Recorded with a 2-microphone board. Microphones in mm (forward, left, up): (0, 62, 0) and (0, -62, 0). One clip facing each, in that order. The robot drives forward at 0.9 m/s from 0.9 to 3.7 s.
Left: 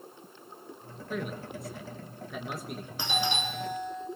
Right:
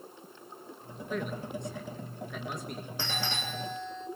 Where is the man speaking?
5° left (ahead or behind), 1.4 m.